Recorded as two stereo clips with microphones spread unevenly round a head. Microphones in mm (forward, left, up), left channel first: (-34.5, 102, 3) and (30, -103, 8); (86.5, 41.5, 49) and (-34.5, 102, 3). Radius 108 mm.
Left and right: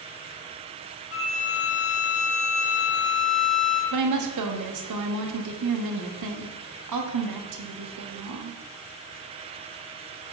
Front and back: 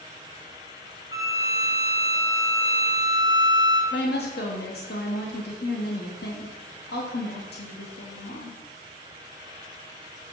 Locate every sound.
1.1 s a violin: 80° left, 2 m
3.9 s a woman speaking: 70° right, 1.0 m